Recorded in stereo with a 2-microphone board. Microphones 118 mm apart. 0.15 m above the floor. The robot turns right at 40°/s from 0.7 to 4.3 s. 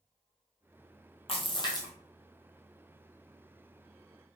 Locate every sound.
1.3 s a splash: 55° left (ahead or behind), 0.9 m; by 1.9 s 30° left (ahead or behind), 0.9 m